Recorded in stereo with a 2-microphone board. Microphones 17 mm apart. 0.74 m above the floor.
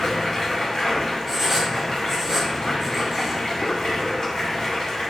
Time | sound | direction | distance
0.0 | running water | 40° left (ahead or behind) | 1.0 m
1.3 | writing | 15° right (ahead or behind) | 0.8 m